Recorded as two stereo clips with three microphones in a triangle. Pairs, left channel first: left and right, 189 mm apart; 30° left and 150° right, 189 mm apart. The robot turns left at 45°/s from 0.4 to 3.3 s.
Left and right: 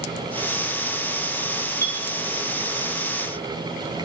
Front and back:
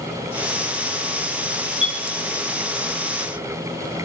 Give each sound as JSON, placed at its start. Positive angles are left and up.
{"t": 1.8, "sound": "a clink", "azimuth_deg": 160, "distance_m": 6.0}